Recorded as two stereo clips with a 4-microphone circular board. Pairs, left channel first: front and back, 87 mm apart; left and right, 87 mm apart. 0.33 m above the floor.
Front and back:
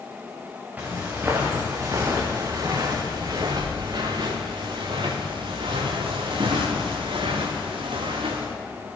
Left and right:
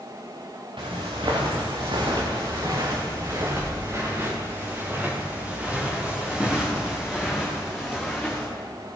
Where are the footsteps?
110° right, 2.5 m; by 8.5 s 175° left, 4 m.